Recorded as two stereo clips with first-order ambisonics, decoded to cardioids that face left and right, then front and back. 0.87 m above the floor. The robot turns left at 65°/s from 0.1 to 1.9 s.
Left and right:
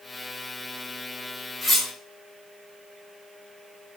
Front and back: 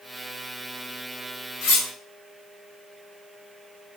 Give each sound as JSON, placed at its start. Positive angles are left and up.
{"t": 1.6, "sound": "cutlery clinking", "azimuth_deg": 10, "distance_m": 0.8}